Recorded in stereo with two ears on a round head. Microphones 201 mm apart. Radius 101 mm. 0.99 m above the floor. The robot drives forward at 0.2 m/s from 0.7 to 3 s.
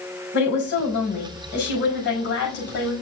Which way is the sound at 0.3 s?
60° left (ahead or behind).